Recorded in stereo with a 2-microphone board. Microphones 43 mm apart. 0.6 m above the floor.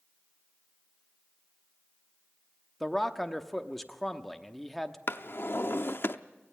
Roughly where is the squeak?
No squeak in this recording.